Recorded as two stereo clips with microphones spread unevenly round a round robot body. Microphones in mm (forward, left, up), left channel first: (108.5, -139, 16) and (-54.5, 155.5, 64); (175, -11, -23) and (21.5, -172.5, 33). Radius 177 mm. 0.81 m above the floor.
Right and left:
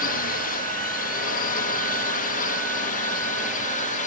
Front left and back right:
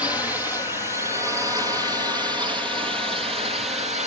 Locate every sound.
0.0 s a drone: 35° right; by 4.1 s 80° right